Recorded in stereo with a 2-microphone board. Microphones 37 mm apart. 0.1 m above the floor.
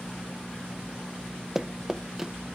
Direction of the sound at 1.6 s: 10° right (ahead or behind).